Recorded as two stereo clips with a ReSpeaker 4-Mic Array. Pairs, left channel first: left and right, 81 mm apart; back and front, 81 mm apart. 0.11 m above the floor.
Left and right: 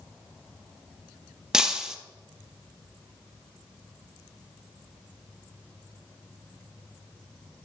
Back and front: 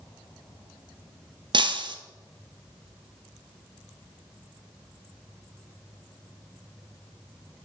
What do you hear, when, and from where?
1.5 s breaking glass: 10° right, 0.7 m